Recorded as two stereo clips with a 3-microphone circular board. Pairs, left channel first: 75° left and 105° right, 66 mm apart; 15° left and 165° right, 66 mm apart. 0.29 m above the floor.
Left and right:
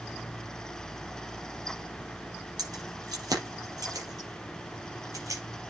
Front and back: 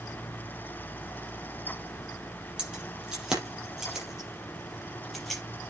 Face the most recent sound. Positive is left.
turn(degrees=-70)